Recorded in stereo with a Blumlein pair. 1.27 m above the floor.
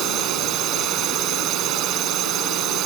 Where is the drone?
35° right.